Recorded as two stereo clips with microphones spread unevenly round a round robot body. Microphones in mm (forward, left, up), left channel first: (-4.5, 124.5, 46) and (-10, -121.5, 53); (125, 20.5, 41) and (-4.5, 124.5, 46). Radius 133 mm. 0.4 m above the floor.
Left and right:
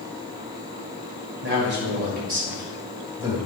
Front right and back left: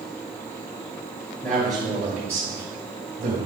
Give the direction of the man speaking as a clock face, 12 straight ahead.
4 o'clock.